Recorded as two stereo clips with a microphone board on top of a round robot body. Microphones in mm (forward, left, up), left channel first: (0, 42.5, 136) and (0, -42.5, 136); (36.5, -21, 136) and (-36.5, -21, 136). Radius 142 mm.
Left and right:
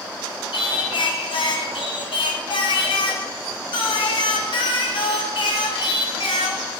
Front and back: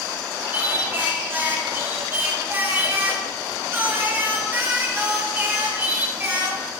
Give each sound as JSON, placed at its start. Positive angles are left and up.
{"t": 0.5, "sound": "singing", "azimuth_deg": 115, "distance_m": 1.4}